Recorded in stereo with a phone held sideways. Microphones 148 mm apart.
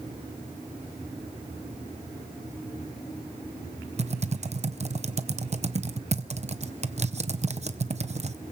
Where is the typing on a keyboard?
45° right (ahead or behind), 0.7 m.